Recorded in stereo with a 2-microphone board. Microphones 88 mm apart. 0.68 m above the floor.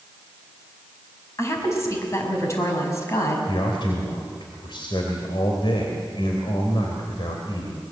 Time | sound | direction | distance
1.4 | a woman speaking | 35° left (ahead or behind) | 5 m
3.5 | a man speaking | 70° left (ahead or behind) | 3 m